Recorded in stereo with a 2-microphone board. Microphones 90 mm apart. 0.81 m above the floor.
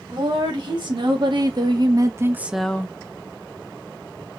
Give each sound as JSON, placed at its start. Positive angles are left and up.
{"t": 0.1, "sound": "a woman speaking", "side_deg": -60, "distance_m": 2.0}